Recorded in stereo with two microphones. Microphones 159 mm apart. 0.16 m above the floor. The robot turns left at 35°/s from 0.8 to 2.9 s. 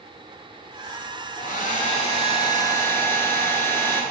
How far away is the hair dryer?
About 0.5 m.